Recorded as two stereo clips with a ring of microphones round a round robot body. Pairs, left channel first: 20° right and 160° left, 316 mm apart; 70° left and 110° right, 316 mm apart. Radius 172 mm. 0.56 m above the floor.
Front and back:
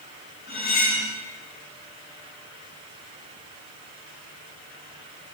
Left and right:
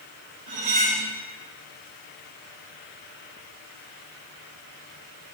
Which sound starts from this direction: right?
Cutlery clinking, at 0.5 s.